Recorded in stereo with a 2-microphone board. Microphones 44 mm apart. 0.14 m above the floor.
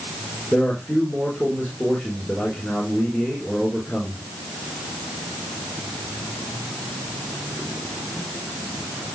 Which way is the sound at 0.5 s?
15° left (ahead or behind).